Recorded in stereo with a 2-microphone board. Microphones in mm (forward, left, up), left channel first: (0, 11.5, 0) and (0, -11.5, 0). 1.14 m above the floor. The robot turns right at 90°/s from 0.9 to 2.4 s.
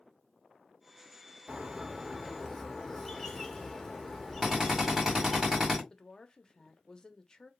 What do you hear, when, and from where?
1.5 s a bird: 75° right, 0.8 m; by 5.4 s 5° left, 0.8 m
4.4 s a drill: 25° right (ahead or behind), 1.8 m
5.9 s a woman speaking: 25° left (ahead or behind), 0.6 m